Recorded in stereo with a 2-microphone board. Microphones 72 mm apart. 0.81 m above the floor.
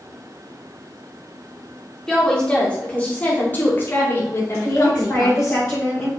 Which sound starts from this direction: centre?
A woman speaking, at 2.1 s.